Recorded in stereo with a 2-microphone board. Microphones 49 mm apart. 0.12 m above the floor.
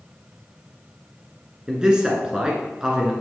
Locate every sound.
1.7 s a man speaking: 15° right (ahead or behind), 1.6 m